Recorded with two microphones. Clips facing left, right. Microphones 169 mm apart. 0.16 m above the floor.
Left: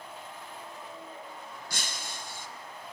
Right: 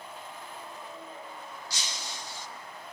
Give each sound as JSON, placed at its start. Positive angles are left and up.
{"t": 1.7, "sound": "breaking glass", "side_deg": 55, "distance_m": 1.5}